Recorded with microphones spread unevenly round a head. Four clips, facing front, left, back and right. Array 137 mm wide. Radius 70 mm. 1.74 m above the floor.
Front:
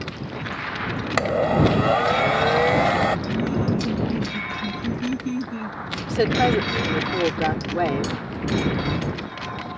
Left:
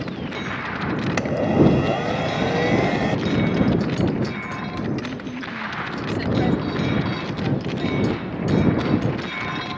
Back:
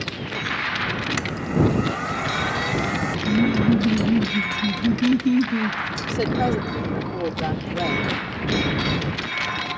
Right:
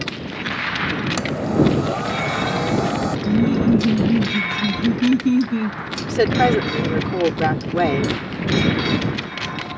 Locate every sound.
1.2 s a blender: 30° left
3.3 s laughter: 120° right
6.1 s a woman speaking: 75° right